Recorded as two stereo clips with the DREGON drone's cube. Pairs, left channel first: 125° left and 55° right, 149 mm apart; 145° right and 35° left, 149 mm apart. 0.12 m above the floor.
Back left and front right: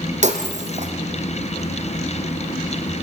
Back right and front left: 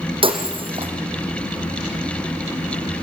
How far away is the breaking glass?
About 3 m.